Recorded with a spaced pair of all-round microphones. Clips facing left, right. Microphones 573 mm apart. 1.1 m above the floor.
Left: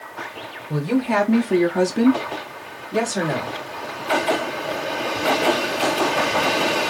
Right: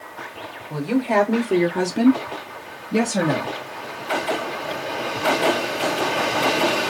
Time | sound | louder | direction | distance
0.7 | a woman speaking | even | 45° left (ahead or behind) | 1.0 m